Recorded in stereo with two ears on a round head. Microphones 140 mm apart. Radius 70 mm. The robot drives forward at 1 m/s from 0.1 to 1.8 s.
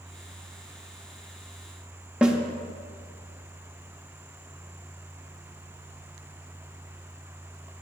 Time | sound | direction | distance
2.2 | a snare drum | 5° right (ahead or behind) | 0.9 m